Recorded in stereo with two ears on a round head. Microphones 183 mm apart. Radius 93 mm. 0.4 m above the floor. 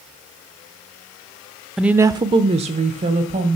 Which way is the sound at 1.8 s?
Centre (ahead or behind).